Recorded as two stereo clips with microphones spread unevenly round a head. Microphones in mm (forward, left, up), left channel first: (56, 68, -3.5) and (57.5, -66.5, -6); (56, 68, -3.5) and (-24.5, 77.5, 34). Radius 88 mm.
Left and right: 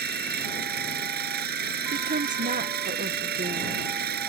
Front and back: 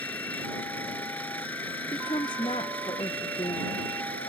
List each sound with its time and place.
0.0 s an engine running: 95° right
1.9 s a woman speaking: 60° right